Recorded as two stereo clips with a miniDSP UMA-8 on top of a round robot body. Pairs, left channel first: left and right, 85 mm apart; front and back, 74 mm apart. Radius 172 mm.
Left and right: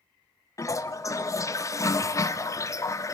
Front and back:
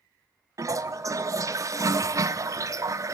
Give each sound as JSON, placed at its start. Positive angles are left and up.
{"t": 0.6, "sound": "a toilet flushing", "azimuth_deg": 140, "distance_m": 0.7}